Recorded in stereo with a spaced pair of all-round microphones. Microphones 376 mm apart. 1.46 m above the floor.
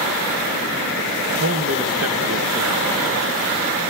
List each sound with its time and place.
1.4 s a man speaking: 40° right (ahead or behind), 1.3 m